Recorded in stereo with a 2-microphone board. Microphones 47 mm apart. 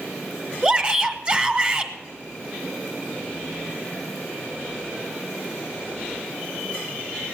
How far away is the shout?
About 1.1 m.